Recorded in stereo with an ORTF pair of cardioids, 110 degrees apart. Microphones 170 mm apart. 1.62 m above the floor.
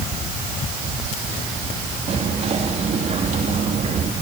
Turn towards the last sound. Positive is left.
turn(degrees=-40)